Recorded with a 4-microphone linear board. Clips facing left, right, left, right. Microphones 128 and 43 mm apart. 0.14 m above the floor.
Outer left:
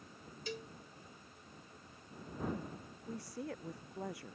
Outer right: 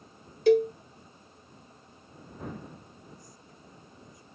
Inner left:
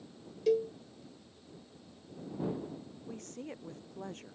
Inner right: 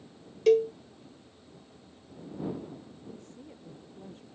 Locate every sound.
0.5 s a cowbell: 75° right (ahead or behind)
3.1 s a woman speaking: 75° left (ahead or behind)